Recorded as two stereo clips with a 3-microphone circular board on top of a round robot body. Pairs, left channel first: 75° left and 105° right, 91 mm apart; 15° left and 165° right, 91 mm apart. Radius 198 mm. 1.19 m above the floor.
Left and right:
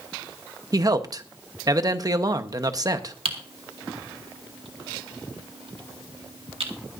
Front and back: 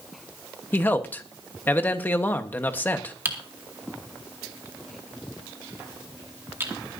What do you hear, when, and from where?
0.7 s a man speaking: 55° right, 1.2 m
3.2 s typing on a keyboard: 100° right, 1.9 m